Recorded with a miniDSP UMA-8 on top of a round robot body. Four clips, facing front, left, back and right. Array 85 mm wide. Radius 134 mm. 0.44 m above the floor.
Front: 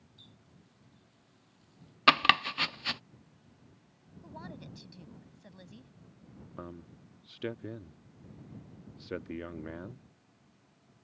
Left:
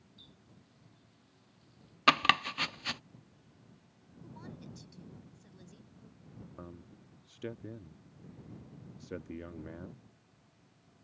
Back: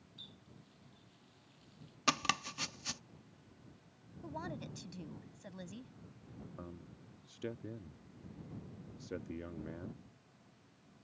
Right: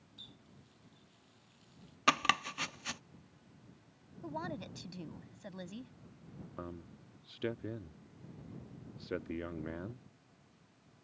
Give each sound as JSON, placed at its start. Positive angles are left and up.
{"t": 0.2, "sound": "a running tap", "azimuth_deg": -125}
{"t": 2.1, "sound": "chopping", "azimuth_deg": 25}
{"t": 4.2, "sound": "a woman speaking", "azimuth_deg": -105}
{"t": 6.6, "sound": "a man speaking", "azimuth_deg": -35}